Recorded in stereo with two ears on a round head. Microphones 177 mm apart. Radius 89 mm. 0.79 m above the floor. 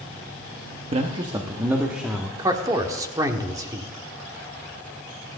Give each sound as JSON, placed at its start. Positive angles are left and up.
{"t": 0.9, "sound": "a man speaking", "side_deg": -30, "distance_m": 1.2}
{"t": 2.4, "sound": "a man speaking", "side_deg": -20, "distance_m": 1.5}